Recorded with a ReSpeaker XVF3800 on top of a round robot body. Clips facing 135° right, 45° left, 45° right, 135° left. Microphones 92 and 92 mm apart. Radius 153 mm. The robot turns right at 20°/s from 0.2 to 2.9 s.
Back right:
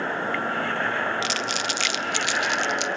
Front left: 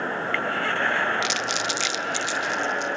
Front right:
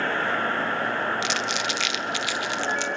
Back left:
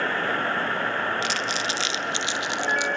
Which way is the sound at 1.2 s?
175° left.